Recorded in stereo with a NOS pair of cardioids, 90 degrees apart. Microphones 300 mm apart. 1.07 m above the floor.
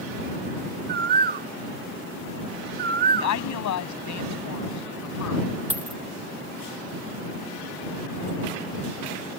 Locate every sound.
0.9 s a bird: 35° right
3.1 s a woman speaking: 70° left
5.7 s a dropped coin: 5° right